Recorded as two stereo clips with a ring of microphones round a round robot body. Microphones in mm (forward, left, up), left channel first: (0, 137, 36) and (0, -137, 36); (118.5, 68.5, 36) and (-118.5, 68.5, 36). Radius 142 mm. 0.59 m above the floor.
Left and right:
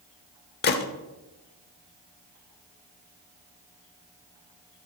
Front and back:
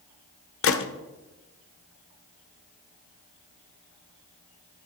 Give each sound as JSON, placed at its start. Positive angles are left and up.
{"t": 0.6, "sound": "a gunshot", "azimuth_deg": 35, "distance_m": 0.8}